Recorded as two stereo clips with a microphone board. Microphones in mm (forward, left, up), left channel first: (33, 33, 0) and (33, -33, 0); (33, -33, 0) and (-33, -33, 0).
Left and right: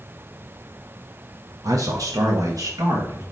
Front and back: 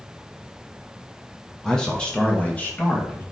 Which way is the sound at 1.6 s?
85° right.